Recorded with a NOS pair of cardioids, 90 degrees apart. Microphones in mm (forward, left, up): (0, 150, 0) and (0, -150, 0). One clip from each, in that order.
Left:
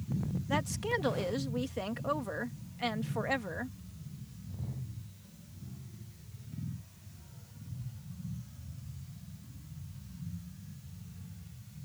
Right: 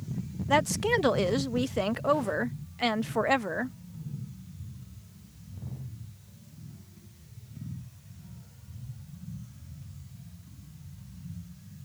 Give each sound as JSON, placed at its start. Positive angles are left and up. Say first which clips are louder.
{"t": 0.5, "sound": "a woman speaking", "louder": "right 8 dB", "azimuth_deg": -40}